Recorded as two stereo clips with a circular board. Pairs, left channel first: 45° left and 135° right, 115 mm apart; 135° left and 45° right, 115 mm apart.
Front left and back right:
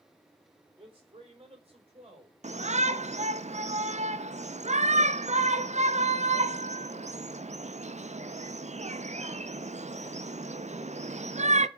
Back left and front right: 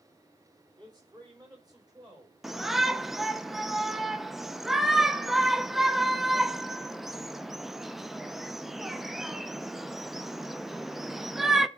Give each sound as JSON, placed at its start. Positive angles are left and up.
{"t": 0.8, "sound": "a man speaking", "azimuth_deg": -95, "distance_m": 3.5}
{"t": 2.4, "sound": "a shout", "azimuth_deg": -135, "distance_m": 0.7}